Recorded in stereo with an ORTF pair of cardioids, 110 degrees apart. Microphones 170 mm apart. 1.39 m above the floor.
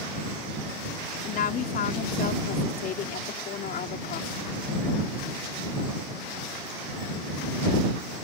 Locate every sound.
1.2 s a woman speaking: 55° left